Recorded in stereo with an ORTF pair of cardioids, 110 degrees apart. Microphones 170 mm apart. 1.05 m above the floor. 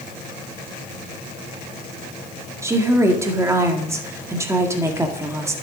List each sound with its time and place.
2.6 s a woman speaking: 15° right, 1.8 m